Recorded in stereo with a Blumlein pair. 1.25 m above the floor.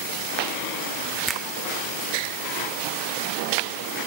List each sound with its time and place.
1.3 s a finger snap: 10° right, 0.7 m